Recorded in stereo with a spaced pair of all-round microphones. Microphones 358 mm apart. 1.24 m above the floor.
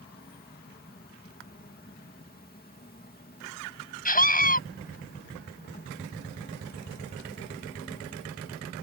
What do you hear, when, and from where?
0.0 s an insect: 25° left (ahead or behind)
4.0 s a scream: 25° left (ahead or behind)